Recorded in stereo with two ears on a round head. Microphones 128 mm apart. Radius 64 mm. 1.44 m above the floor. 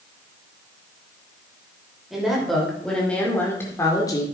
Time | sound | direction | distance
2.1 | a woman speaking | centre (ahead or behind) | 5.5 m